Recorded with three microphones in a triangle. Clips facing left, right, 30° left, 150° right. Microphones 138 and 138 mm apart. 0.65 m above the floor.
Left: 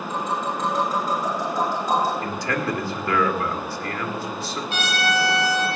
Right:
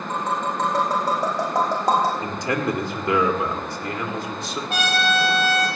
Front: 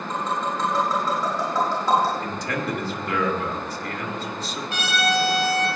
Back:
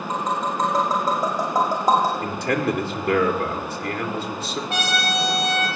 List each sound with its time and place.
0.1 s tapping: 105° right, 6.5 m
2.2 s a man speaking: 155° right, 2 m
4.7 s a trumpet: 125° right, 6 m